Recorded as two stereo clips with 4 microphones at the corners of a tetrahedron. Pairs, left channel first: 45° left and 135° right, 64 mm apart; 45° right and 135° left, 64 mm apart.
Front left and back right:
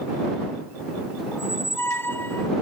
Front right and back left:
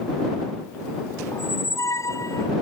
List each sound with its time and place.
1.3 s a squeak: 10° right